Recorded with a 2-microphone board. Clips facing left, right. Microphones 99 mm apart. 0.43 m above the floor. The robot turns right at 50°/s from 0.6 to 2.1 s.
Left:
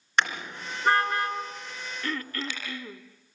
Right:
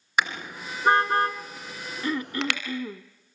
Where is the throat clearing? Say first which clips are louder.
Right 6 dB; 20° right (ahead or behind), 0.6 m; by 3.0 s 15° right (ahead or behind), 0.6 m.